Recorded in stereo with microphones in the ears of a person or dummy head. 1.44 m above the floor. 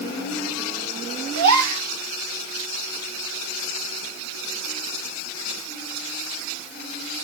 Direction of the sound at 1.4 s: 75° right (ahead or behind).